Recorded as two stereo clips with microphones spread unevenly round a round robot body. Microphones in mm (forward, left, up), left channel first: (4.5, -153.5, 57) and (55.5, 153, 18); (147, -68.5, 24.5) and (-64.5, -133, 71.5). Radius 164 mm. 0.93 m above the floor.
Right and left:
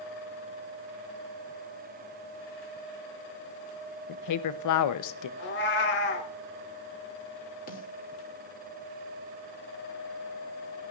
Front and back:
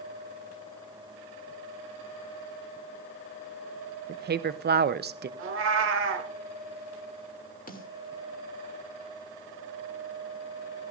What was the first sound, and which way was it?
A woman speaking, 115° right.